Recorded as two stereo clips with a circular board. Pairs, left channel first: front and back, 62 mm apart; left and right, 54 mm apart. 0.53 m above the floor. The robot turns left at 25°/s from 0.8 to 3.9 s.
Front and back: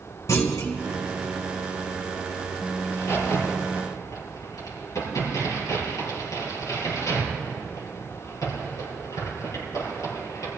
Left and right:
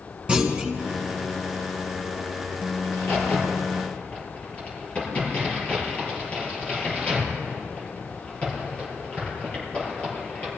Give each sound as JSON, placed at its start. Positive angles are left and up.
{"t": 0.3, "sound": "a clunk", "azimuth_deg": -20, "distance_m": 1.9}
{"t": 2.8, "sound": "a crack", "azimuth_deg": 55, "distance_m": 5.0}